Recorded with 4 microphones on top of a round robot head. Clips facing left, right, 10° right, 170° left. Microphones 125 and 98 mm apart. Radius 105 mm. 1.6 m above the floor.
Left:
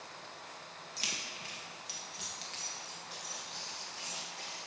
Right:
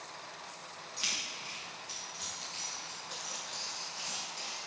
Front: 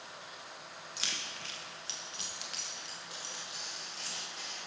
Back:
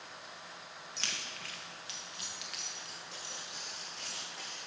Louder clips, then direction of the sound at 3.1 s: Right 2 dB, front 1 dB; 35° right.